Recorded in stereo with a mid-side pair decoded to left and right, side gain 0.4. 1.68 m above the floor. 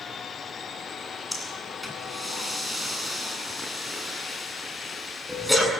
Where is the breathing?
5° left, 8.5 m.